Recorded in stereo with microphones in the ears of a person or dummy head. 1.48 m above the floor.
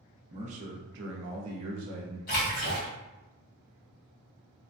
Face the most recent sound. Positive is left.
turn(degrees=45)  # may be behind; listen again after turning